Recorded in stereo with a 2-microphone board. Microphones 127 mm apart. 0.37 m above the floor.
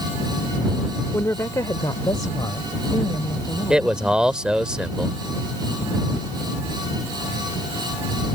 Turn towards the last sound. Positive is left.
turn(degrees=-5)  # may be behind; listen again after turning